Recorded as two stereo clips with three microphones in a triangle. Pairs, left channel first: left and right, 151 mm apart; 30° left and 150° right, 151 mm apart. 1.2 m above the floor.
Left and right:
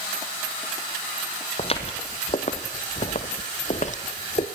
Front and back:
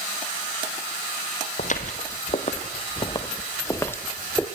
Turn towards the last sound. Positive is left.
turn(degrees=115)